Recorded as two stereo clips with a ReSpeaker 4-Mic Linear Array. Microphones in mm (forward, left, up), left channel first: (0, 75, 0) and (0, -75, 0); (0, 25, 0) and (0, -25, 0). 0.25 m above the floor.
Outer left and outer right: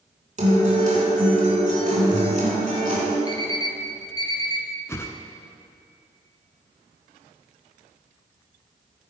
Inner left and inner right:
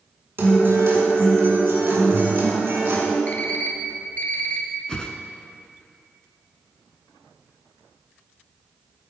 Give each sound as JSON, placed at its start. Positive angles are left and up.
{"t": 0.4, "sound": "a guitar", "side_deg": -55, "distance_m": 3.0}
{"t": 3.3, "sound": "an alarm clock", "side_deg": 25, "distance_m": 1.7}
{"t": 4.9, "sound": "a whoosh", "side_deg": 20, "distance_m": 0.7}